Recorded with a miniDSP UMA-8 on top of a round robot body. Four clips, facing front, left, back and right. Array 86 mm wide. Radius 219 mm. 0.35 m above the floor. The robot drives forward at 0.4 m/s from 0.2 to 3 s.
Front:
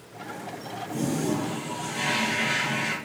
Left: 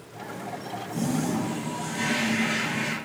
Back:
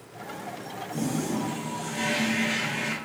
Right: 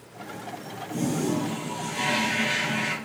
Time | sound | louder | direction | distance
0.9 | a toilet flushing | right 1 dB, front 2 dB | 60° right | 3.5 m